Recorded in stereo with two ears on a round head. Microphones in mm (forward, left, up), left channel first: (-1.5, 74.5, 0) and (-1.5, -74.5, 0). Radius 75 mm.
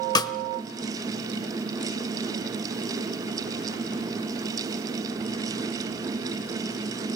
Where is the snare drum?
25° left (ahead or behind), 1.0 m.